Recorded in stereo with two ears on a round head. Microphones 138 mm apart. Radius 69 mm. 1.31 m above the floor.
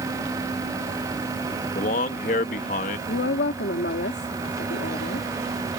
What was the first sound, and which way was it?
A man speaking, 50° left (ahead or behind).